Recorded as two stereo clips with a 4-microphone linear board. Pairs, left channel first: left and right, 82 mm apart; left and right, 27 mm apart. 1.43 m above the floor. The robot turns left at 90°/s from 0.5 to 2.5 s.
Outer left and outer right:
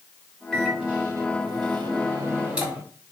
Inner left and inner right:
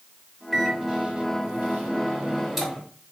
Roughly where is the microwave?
Ahead.